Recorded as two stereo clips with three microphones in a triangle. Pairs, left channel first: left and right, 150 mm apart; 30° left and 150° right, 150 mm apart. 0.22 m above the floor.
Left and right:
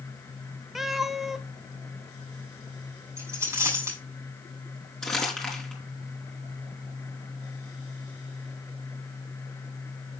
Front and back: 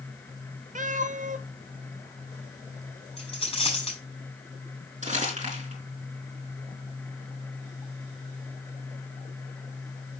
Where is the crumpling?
175° left, 4 m.